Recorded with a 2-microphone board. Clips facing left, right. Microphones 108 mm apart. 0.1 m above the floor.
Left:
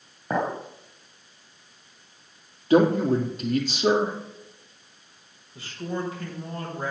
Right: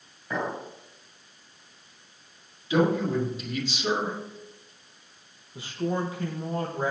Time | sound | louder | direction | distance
0.3 | a clink | left 4 dB | 50° left (ahead or behind) | 1.8 m
2.7 | a man speaking | left 5 dB | 55° left (ahead or behind) | 3 m
5.5 | a man speaking | right 3 dB | 20° right (ahead or behind) | 4 m